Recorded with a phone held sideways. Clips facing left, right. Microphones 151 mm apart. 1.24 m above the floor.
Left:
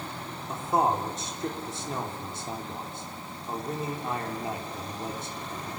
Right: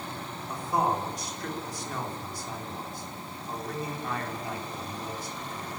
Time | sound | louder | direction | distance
0.5 | a man speaking | left 2 dB | 25° left (ahead or behind) | 4 m